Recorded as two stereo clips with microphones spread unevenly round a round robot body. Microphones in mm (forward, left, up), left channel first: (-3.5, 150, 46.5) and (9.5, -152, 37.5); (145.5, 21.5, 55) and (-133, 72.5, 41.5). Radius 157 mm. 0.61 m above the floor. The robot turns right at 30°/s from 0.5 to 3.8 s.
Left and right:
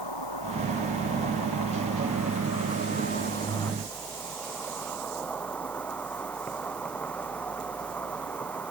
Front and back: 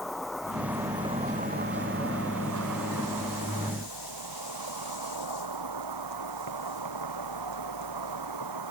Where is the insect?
80° left; by 8.7 s straight behind.